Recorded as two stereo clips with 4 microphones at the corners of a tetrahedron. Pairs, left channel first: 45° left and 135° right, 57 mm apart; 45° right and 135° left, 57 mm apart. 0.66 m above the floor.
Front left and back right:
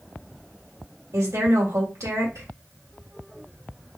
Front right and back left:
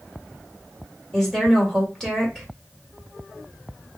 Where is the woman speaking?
130° right, 1.9 m.